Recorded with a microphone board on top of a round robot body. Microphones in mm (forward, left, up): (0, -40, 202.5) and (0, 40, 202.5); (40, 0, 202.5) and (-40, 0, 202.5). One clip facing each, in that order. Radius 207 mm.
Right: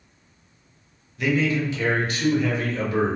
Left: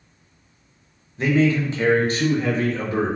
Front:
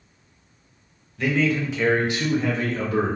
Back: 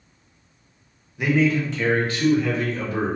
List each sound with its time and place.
1.2 s a man speaking: 120° left, 1.0 m; by 3.2 s 35° left, 1.4 m